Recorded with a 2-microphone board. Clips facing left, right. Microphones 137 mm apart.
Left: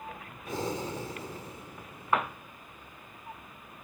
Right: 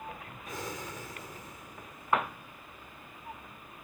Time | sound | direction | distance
0.5 | breathing | 30° left (ahead or behind) | ?